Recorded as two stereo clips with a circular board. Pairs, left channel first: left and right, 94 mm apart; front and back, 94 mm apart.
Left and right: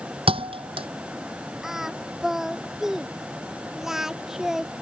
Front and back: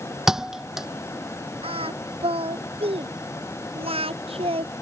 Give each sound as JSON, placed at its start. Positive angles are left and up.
{"t": 0.3, "sound": "a thud", "azimuth_deg": -95}
{"t": 1.6, "sound": "singing", "azimuth_deg": -175}